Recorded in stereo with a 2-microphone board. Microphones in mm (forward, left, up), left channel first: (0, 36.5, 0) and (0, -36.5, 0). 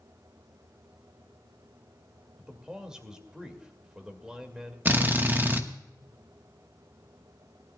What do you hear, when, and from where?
2.4 s a man speaking: 10° right (ahead or behind), 2.5 m
4.8 s a drill: 25° right (ahead or behind), 1.1 m